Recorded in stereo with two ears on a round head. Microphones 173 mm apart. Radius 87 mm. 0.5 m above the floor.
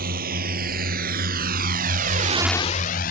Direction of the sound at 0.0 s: 50° right (ahead or behind).